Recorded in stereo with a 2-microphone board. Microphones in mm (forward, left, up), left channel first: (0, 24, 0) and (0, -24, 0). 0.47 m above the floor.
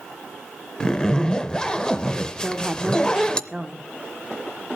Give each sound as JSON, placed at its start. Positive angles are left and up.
{"t": 0.8, "sound": "a zipper", "side_deg": 15, "distance_m": 0.6}
{"t": 2.4, "sound": "a woman speaking", "side_deg": -15, "distance_m": 1.1}